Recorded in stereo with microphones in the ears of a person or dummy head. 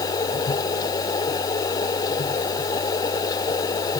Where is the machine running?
25° left (ahead or behind).